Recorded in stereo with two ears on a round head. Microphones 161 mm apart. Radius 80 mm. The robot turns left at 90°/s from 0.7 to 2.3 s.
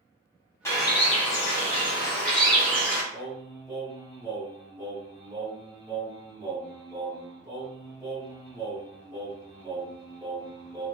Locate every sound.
0.7 s a bird: 155° left, 1.0 m; by 3.0 s 10° left, 1.0 m
3.1 s singing: 15° right (ahead or behind), 1.7 m